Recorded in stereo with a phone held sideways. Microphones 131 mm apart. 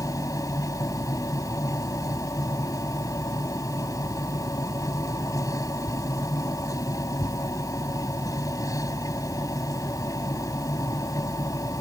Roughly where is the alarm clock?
No alarm clock in this recording.